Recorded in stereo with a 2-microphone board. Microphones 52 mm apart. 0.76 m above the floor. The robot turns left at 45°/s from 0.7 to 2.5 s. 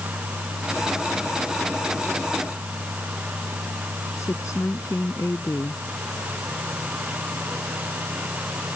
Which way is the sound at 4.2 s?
70° left (ahead or behind).